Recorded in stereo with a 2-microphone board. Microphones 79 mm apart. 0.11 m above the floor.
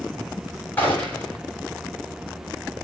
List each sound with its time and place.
0.8 s a gunshot: 25° left (ahead or behind), 6.5 m